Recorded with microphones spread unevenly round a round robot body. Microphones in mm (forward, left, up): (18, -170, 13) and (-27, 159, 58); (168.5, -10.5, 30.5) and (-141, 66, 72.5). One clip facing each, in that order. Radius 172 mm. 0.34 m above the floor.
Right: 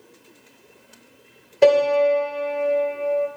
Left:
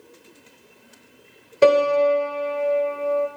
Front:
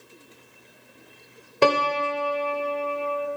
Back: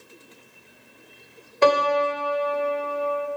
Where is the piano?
10° left, 1.2 m.